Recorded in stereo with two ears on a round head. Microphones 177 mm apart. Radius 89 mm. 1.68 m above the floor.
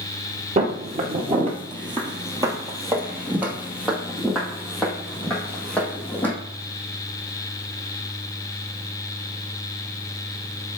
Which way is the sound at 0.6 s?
35° right (ahead or behind).